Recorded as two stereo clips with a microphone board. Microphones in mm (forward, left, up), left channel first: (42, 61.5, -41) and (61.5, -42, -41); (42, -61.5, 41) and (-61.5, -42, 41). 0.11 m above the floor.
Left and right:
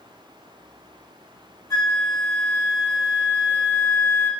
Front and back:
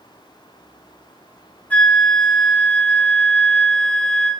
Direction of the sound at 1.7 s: 60° left.